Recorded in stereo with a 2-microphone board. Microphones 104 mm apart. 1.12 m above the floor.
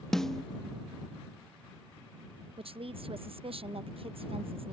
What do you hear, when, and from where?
0.1 s a snare drum: 5° left (ahead or behind)
2.6 s a woman speaking: 65° right (ahead or behind)